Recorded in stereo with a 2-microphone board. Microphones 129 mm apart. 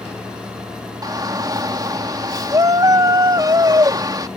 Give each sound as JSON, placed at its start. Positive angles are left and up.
{"t": 1.0, "sound": "a shout", "side_deg": -30}